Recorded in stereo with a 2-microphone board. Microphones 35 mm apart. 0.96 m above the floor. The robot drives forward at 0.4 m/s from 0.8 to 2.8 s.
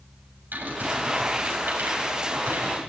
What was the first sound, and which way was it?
Typing on a keyboard, 65° right (ahead or behind).